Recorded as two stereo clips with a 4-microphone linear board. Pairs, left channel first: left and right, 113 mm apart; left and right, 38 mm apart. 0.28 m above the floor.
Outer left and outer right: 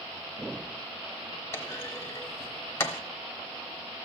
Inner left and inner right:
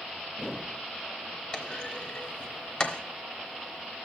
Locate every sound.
1.5 s a clunk: 25° left (ahead or behind), 0.9 m